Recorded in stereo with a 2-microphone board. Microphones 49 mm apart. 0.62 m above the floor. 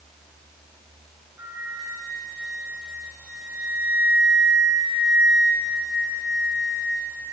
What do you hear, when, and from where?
1.4 s a flute: 80° right, 4 m